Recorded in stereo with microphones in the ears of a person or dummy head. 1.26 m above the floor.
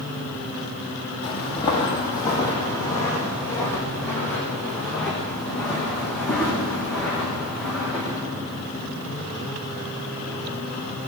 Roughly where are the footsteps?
Left.